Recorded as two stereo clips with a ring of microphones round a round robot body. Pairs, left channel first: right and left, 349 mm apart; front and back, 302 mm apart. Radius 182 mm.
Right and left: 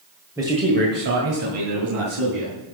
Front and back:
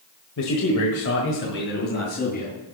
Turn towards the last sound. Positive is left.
turn(degrees=65)